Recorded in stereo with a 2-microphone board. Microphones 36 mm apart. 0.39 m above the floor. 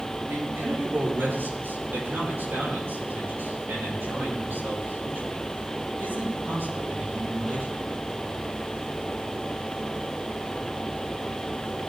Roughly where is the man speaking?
Right.